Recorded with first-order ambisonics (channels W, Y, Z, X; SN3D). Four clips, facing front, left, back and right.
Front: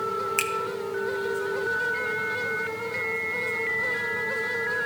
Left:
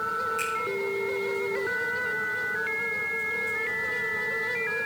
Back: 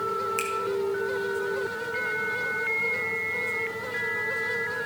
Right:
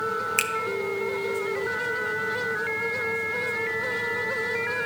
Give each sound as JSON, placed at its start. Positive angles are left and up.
{"t": 0.4, "sound": "a finger snap", "azimuth_deg": -65, "distance_m": 0.6}